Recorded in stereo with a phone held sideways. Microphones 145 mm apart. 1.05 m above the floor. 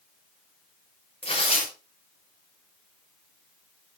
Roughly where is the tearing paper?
Left.